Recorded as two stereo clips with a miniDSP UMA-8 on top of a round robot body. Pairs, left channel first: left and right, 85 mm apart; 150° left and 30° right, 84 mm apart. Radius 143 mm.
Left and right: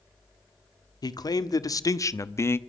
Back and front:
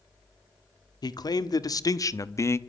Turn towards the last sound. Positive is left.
turn(degrees=125)